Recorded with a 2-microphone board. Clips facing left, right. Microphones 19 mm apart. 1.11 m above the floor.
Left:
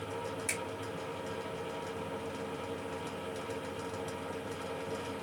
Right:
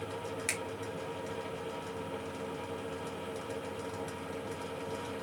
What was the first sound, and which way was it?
A finger snap, 45° right (ahead or behind).